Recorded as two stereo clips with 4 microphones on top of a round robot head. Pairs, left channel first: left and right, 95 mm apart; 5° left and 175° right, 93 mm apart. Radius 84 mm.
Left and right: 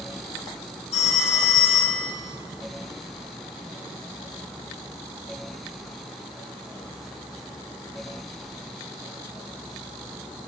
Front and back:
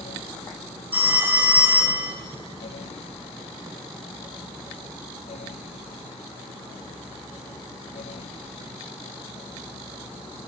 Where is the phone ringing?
115° left, 4 m.